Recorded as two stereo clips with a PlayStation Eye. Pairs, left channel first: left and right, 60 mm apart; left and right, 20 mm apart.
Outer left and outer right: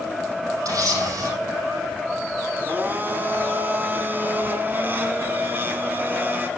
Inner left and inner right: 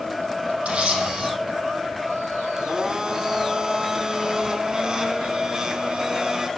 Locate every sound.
0.7 s a camera shutter: 70° right (ahead or behind), 5 m
2.6 s a blender: 30° right (ahead or behind), 1.6 m